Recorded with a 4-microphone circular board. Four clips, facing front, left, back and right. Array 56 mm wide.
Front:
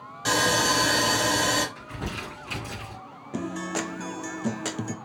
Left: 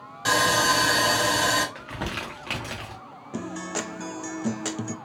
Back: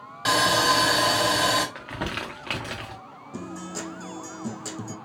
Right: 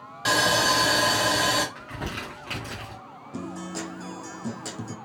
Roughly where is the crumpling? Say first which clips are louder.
Left 2 dB, back 4 dB; behind.